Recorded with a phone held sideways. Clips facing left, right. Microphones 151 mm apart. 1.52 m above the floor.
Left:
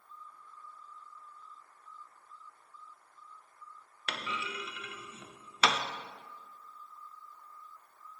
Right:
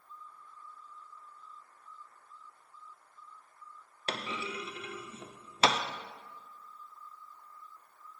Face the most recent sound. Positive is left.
turn(degrees=-35)  # may be behind; listen again after turning